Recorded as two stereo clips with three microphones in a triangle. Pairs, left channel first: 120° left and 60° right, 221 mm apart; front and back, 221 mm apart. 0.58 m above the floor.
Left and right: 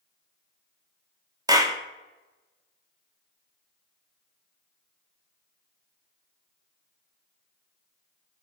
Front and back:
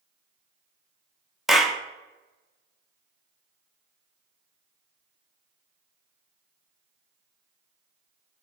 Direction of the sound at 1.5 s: 90° right.